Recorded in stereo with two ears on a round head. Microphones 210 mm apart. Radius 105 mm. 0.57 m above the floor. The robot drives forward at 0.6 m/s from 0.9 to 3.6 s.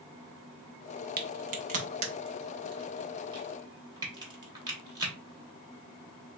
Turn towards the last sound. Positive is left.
turn(degrees=-20)  # may be behind; listen again after turning